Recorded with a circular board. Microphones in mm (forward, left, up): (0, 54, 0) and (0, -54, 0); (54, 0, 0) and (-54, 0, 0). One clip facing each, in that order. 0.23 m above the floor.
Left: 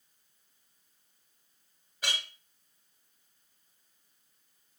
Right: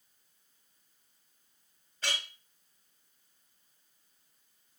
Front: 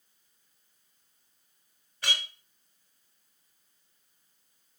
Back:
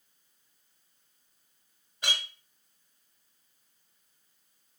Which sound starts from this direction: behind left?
A clink, at 2.0 s.